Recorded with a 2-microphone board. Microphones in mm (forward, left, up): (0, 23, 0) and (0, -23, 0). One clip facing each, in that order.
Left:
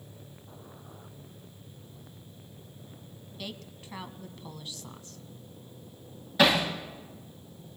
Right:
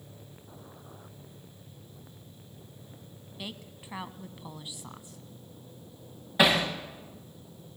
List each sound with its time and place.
3.4 s a woman speaking: 15° right (ahead or behind), 1.1 m
6.4 s hammering: 20° right (ahead or behind), 6 m